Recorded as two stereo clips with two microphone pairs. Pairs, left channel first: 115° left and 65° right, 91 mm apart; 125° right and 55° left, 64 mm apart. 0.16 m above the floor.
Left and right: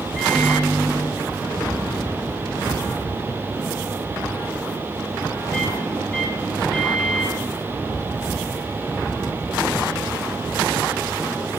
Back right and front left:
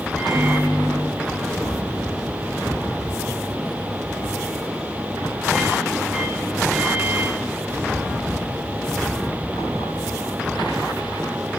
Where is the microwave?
170° left, 1.4 m.